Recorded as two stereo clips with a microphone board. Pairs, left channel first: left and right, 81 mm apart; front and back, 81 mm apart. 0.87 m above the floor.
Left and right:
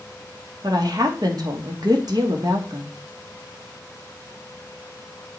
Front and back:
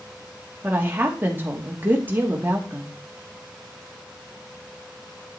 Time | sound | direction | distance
0.6 | a woman speaking | 115° right | 2 m